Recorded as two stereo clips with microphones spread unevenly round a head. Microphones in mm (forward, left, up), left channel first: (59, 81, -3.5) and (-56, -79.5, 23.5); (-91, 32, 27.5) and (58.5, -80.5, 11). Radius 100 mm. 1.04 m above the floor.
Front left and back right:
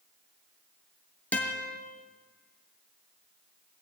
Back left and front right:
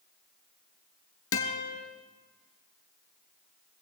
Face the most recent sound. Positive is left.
turn(degrees=140)